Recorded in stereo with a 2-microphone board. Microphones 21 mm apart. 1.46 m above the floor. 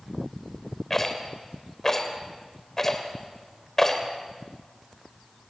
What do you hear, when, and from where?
0.9 s a rattle: 25° left (ahead or behind), 2.5 m